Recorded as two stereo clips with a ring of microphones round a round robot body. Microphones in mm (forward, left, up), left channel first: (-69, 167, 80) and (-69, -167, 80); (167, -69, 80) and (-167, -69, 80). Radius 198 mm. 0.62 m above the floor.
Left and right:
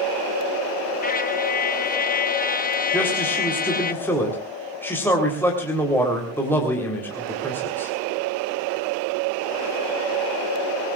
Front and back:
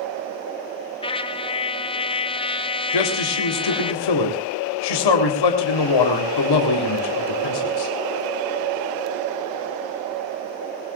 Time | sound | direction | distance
1.0 | a trumpet | 60° left | 1.3 m
2.9 | a man speaking | 5° left | 3.5 m